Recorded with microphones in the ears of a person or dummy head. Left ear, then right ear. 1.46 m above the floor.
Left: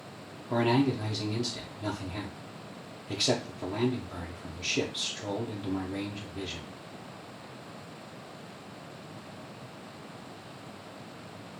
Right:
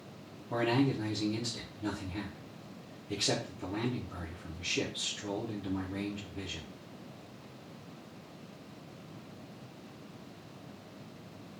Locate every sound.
0.5 s a man speaking: 50° left (ahead or behind), 0.6 m